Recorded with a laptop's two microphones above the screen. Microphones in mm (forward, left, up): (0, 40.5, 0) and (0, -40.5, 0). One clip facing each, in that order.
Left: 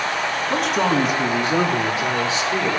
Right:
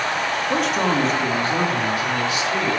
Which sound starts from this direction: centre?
A man speaking, at 0.5 s.